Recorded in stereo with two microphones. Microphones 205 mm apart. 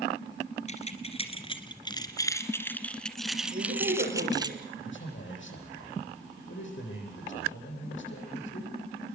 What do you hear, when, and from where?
0.7 s keys jangling: 35° left (ahead or behind), 2.5 m; by 4.5 s 20° right (ahead or behind), 1.8 m
3.5 s a woman speaking: 45° right (ahead or behind), 9.5 m
4.8 s a man speaking: 70° left (ahead or behind), 10 m